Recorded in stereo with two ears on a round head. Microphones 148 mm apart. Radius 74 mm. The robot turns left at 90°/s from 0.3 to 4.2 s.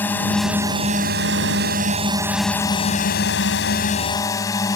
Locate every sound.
0.0 s a drone: 10° left; by 4.8 s 20° left